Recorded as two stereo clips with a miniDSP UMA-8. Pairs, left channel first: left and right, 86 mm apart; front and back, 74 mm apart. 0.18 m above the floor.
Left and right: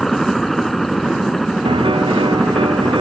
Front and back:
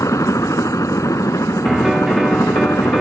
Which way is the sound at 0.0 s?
5° left.